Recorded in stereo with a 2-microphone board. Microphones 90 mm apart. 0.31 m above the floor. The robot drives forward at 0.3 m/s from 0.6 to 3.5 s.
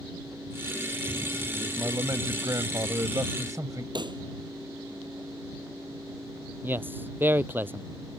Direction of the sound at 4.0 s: 55° right (ahead or behind).